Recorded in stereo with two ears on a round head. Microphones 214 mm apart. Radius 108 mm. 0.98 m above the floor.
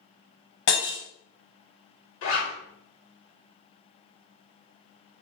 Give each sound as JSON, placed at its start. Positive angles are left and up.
{"t": 0.7, "sound": "breaking glass", "side_deg": 55, "distance_m": 2.5}
{"t": 2.2, "sound": "a zipper", "side_deg": 60, "distance_m": 2.0}